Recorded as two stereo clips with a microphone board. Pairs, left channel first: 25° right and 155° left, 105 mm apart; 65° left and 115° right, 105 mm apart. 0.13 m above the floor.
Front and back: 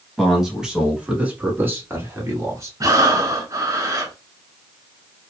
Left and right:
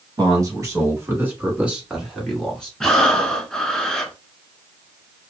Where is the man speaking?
115° right, 1.5 m; by 2.7 s 145° left, 1.4 m.